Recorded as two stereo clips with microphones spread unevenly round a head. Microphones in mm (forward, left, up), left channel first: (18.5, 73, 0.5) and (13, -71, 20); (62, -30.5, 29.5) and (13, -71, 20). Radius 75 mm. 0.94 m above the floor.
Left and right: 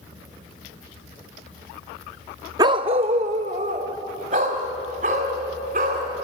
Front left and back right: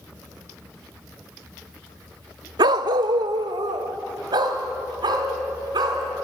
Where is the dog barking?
150° right, 0.5 m; by 6.0 s 135° right, 4.5 m.